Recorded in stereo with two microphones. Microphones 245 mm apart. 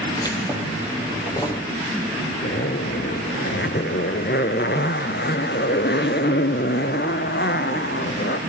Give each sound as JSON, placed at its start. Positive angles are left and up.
{"t": 0.2, "sound": "keys jangling", "side_deg": 15, "distance_m": 3.0}
{"t": 2.4, "sound": "a zipper", "side_deg": 45, "distance_m": 0.9}